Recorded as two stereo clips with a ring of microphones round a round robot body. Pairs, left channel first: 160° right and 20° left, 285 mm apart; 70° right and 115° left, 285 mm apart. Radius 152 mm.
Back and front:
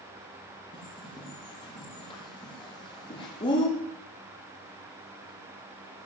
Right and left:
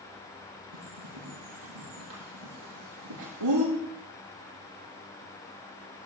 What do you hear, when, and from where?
0.7 s a bird: 130° left, 7 m